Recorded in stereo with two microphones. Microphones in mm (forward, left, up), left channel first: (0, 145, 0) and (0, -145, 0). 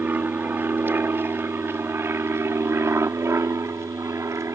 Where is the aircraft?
5° right (ahead or behind); by 4.5 s 10° right (ahead or behind).